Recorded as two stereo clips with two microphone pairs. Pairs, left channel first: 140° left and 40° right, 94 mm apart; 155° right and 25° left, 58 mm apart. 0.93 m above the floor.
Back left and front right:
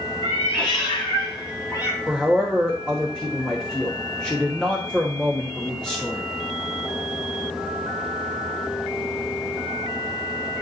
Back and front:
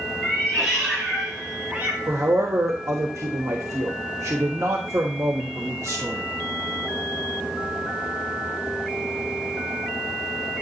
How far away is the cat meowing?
About 3 m.